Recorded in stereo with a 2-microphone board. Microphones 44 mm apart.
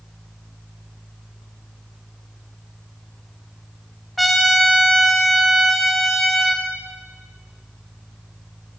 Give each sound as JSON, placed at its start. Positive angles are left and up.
{"t": 4.2, "sound": "a trumpet", "side_deg": 0, "distance_m": 1.3}